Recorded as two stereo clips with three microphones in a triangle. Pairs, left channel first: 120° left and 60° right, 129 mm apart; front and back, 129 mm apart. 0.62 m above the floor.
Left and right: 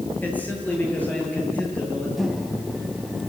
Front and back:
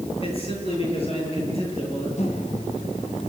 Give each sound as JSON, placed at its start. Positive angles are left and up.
{"t": 0.2, "sound": "a man speaking", "azimuth_deg": 45, "distance_m": 10.0}
{"t": 2.2, "sound": "a microwave", "azimuth_deg": 30, "distance_m": 3.0}